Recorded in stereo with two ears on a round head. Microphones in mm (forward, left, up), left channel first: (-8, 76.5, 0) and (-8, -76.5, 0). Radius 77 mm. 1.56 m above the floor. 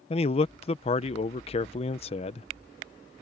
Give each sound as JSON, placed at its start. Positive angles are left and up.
{"t": 0.1, "sound": "a man speaking", "side_deg": 35}